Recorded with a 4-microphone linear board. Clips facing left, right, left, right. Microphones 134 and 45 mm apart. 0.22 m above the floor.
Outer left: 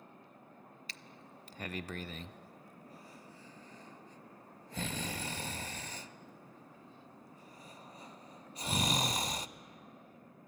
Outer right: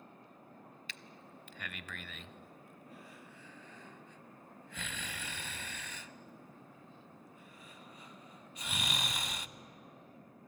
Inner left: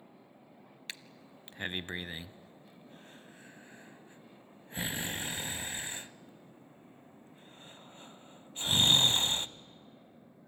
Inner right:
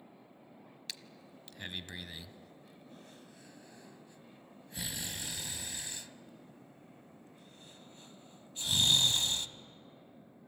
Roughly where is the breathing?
Left.